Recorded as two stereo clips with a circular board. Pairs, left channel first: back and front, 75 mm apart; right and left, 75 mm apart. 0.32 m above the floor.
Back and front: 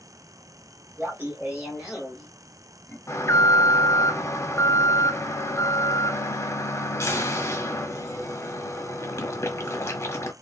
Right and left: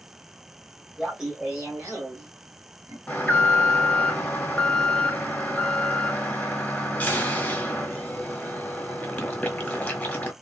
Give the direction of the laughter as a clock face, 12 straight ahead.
12 o'clock.